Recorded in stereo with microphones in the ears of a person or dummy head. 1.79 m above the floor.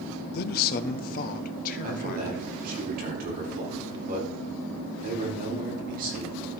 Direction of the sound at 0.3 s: 50° left (ahead or behind).